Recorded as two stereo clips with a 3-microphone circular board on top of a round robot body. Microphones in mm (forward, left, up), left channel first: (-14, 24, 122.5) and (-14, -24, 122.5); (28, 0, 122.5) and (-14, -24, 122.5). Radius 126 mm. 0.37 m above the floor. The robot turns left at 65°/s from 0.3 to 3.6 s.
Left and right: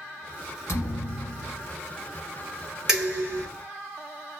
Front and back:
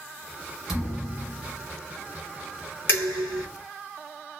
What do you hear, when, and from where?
0.7 s a thud: 125° left, 1.1 m; by 1.7 s 60° left, 1.1 m
2.9 s dishes clattering: 15° right, 2 m; by 3.5 s 50° right, 2 m